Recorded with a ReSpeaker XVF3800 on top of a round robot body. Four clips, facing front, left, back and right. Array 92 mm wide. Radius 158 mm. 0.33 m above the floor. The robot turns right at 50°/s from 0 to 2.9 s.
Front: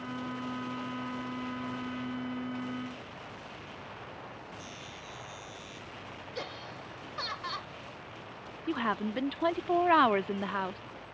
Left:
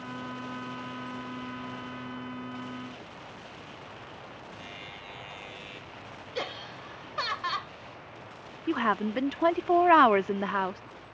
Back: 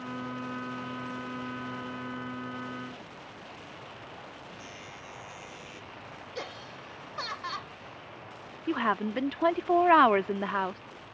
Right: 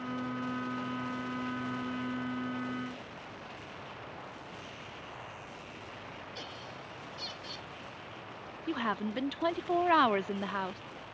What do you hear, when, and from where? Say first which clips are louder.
4.6 s a buzzer: left 2 dB, back 1 dB; 115° left
6.3 s laughter: left 8 dB, back 1 dB; 95° left
8.7 s a woman speaking: left 6 dB, back 3 dB; 120° left